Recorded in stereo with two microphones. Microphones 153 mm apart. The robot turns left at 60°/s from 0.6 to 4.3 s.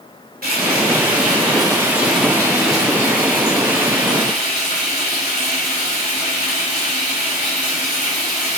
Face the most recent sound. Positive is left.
turn(degrees=50)